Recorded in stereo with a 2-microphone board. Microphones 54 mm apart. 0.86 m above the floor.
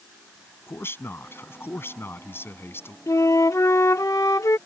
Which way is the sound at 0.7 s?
45° left (ahead or behind).